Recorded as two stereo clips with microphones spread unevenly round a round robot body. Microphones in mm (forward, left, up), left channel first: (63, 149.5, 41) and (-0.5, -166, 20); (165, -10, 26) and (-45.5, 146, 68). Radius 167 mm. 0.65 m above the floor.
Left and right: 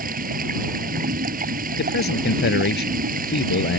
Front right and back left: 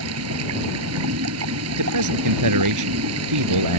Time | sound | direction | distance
0.0 | running water | 170° right | ?
1.8 | a man speaking | 140° left | ?